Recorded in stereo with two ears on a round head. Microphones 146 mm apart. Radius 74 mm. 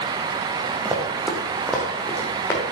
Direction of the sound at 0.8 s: 15° right (ahead or behind).